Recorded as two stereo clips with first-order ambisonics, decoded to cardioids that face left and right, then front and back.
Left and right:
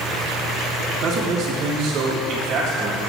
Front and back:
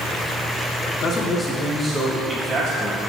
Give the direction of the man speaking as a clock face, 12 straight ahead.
1 o'clock.